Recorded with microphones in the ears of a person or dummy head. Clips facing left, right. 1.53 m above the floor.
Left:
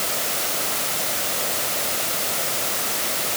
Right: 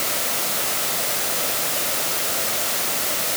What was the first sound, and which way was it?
Only background noise.